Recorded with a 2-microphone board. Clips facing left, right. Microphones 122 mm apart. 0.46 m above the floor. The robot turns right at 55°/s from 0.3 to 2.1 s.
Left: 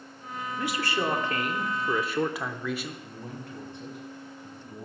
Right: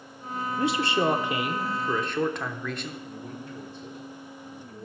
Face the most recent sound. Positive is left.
turn(degrees=65)  # may be behind; listen again after turning